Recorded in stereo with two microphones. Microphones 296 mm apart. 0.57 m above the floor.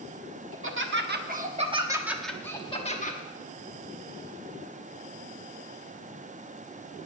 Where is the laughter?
45° right (ahead or behind), 1.4 m; by 3.2 s 30° left (ahead or behind), 1.1 m.